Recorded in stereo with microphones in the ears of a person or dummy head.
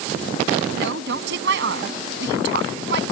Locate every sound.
0.7 s a woman speaking: 70° right (ahead or behind)